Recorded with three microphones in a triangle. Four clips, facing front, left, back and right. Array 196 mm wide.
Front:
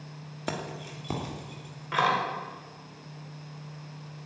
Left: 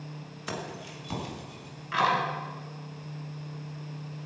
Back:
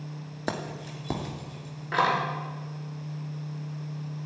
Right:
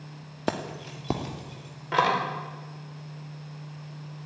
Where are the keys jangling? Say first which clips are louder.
Right 6 dB, back 2 dB; 100° right, 1.7 m.